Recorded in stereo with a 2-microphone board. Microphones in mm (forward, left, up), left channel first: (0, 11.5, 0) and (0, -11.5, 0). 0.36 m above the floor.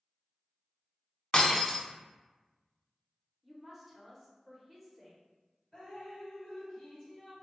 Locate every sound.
1.3 s breaking glass: 40° left (ahead or behind), 0.7 m
3.4 s a woman speaking: centre (ahead or behind), 0.8 m
5.7 s dripping: 25° left (ahead or behind), 1.5 m